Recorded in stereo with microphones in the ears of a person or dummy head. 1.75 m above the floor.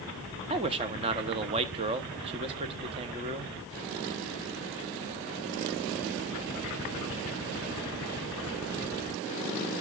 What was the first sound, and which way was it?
A man speaking, 30° right (ahead or behind).